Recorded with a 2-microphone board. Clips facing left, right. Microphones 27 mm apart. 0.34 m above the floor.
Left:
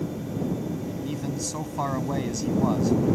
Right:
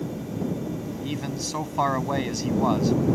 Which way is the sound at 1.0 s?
35° right (ahead or behind).